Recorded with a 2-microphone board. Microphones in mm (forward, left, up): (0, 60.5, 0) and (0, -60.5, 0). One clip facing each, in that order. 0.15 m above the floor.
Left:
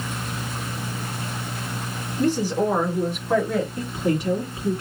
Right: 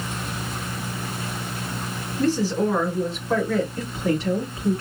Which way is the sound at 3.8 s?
15° left (ahead or behind).